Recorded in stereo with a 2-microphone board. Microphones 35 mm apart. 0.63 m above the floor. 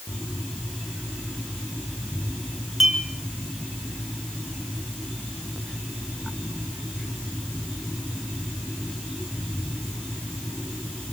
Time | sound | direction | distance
2.8 | a clink | 10° right (ahead or behind) | 5 m